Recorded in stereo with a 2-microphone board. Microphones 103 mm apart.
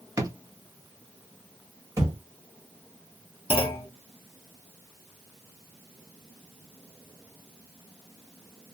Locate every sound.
0.2 s a drawer: 30° right (ahead or behind), 0.6 m
2.0 s a thud: 30° right (ahead or behind), 1.3 m
3.5 s a clunk: 55° left (ahead or behind), 0.8 m